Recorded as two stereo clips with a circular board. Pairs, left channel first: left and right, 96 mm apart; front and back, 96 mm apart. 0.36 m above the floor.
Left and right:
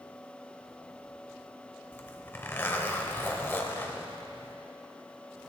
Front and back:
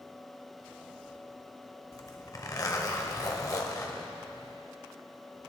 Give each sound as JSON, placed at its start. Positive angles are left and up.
{"t": 1.9, "sound": "a zipper", "azimuth_deg": 30, "distance_m": 1.0}